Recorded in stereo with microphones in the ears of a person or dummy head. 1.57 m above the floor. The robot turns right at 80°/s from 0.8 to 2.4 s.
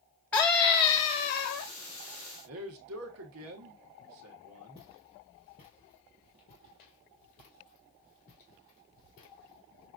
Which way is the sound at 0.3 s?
5° left.